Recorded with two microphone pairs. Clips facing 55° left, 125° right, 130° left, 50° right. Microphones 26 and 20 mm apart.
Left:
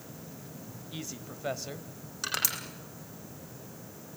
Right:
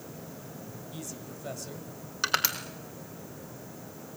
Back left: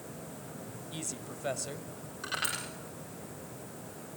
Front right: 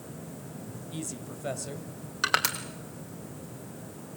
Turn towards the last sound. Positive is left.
turn(degrees=-70)